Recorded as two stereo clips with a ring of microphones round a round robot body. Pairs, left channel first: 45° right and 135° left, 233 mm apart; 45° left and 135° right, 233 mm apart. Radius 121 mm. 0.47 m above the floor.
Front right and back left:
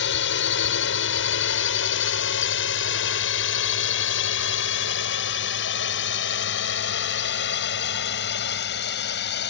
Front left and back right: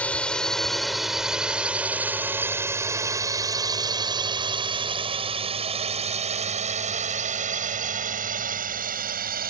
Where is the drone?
40° right; by 9.5 s 85° right.